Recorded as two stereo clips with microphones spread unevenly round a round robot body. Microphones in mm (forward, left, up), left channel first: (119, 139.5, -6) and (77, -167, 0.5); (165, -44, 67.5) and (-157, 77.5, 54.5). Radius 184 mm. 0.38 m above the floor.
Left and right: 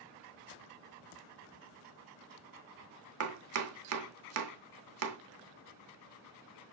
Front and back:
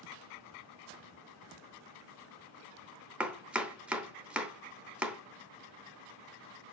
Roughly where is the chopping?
Behind right.